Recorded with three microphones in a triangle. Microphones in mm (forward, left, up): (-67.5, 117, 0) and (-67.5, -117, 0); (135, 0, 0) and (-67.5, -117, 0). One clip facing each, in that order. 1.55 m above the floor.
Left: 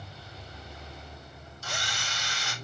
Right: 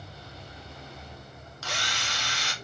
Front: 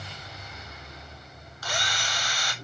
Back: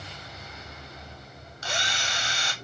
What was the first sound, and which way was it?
A drill, 85° right.